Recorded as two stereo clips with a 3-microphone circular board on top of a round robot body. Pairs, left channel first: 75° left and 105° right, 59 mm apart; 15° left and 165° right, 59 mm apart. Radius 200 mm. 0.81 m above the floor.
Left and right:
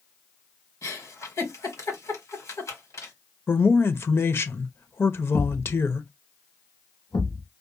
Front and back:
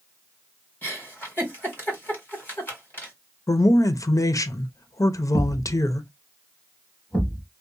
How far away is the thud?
About 1.3 m.